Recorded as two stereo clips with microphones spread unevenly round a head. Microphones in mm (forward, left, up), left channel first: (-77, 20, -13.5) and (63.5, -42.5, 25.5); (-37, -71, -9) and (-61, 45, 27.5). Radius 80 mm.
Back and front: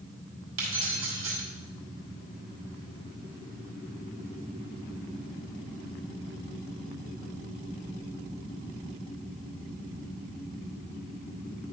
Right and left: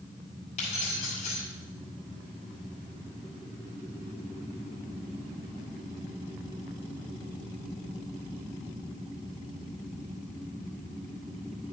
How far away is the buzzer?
I don't hear a buzzer.